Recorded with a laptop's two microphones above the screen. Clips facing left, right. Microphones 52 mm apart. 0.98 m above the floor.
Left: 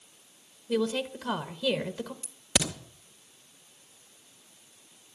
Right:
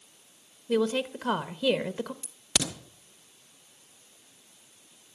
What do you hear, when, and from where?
0.7 s a woman speaking: 35° right (ahead or behind), 1.0 m
2.2 s a crack: 15° left (ahead or behind), 1.7 m